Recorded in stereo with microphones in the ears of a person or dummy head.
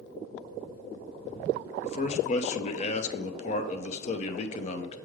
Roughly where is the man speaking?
Left.